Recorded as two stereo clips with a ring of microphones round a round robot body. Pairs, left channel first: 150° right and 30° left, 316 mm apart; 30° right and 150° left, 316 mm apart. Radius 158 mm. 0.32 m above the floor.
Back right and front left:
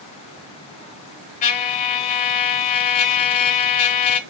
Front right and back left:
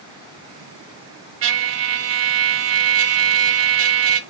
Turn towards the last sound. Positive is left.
turn(degrees=160)